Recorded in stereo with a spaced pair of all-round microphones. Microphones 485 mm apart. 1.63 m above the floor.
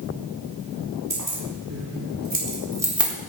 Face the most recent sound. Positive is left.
turn(degrees=0)  # may be behind; listen again after turning